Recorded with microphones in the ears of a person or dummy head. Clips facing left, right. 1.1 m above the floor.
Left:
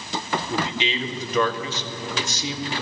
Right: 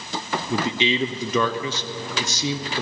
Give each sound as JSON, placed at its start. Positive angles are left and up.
{"t": 0.5, "sound": "a man speaking", "side_deg": -70, "distance_m": 0.8}